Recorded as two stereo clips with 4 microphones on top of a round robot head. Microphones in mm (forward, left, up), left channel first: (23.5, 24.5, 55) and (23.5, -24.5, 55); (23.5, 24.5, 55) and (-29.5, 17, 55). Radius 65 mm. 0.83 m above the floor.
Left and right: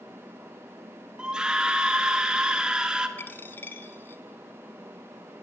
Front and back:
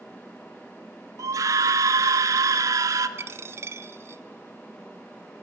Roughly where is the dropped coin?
Behind left.